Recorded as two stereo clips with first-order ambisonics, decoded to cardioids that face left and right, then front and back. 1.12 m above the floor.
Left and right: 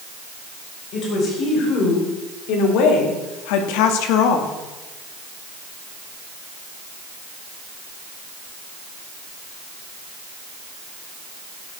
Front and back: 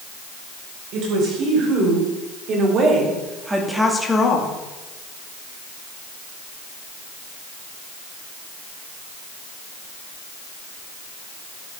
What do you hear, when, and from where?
0.9 s a woman speaking: 140° left, 5 m; by 4.6 s 55° left, 1.8 m